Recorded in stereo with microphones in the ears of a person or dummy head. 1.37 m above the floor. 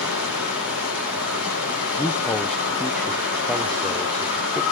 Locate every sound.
0.0 s running water: 80° left, 4.5 m
2.0 s a man speaking: 5° left (ahead or behind), 0.5 m